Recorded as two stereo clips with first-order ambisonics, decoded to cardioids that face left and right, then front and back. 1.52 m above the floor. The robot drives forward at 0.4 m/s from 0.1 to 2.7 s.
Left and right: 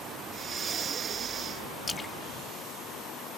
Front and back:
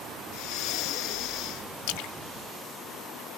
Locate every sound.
0.3 s breathing: 25° right; by 1.7 s 30° right
1.9 s a splash: 15° left